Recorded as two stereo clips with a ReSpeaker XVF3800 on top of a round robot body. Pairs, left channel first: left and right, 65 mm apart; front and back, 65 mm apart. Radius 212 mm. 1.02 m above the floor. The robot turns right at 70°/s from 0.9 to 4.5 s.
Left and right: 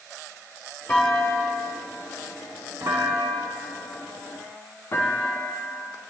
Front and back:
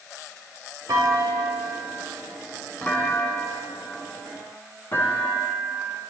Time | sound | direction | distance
0.9 | a clunk | 155° left | 3 m